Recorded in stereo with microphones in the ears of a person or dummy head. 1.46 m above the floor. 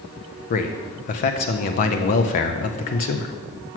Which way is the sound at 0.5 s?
40° left (ahead or behind).